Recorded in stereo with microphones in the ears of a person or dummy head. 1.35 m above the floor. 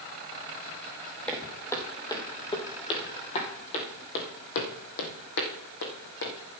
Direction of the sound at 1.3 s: 10° left (ahead or behind).